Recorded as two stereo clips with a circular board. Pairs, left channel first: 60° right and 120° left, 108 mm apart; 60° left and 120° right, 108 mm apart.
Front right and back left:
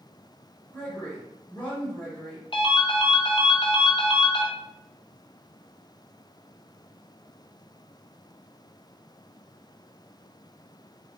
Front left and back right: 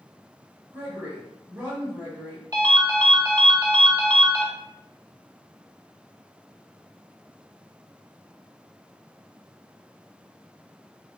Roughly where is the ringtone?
Right.